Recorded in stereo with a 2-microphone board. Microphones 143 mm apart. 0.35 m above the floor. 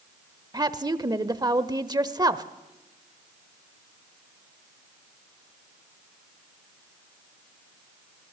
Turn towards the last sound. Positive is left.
turn(degrees=-30)  # may be behind; listen again after turning